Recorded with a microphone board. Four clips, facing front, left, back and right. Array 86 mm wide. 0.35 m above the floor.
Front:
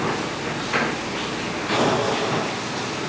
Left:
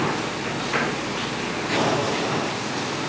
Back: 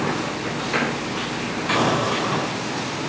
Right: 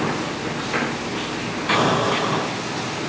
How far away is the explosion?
About 3 m.